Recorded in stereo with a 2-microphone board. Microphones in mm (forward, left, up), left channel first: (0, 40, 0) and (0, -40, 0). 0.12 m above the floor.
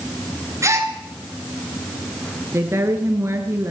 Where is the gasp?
35° right (ahead or behind), 1.9 m.